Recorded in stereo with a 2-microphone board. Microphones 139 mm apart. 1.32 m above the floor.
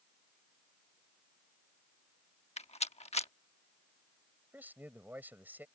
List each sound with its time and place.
2.6 s a rattle: 45° left (ahead or behind)
4.5 s a man speaking: 10° right (ahead or behind)